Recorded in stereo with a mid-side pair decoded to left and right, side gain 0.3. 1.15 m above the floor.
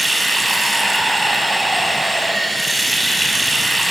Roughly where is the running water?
Ahead.